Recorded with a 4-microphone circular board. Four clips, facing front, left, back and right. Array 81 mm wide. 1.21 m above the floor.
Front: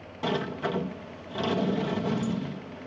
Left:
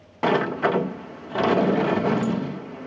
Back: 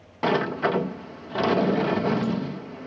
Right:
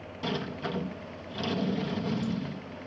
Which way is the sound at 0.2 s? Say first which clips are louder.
Left 13 dB, back 6 dB; 115° left.